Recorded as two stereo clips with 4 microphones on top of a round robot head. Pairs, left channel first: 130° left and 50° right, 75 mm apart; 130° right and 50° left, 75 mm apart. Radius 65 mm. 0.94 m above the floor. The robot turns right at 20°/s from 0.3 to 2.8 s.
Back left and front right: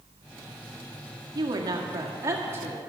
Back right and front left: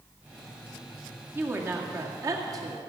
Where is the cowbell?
I don't hear a cowbell.